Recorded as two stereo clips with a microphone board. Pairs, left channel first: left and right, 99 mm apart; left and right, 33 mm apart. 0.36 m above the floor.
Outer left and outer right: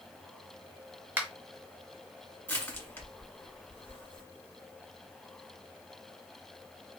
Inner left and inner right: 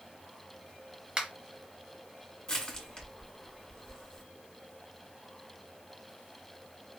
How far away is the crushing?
About 1.4 m.